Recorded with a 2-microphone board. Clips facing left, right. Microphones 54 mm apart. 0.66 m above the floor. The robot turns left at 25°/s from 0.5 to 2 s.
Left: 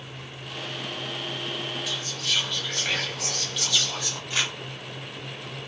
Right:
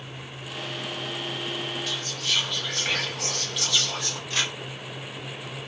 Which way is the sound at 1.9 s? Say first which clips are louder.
Even; centre (ahead or behind).